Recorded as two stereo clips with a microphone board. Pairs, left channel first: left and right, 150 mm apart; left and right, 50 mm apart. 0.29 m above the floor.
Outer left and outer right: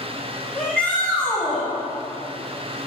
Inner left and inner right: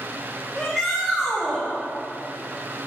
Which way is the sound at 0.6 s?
15° left (ahead or behind).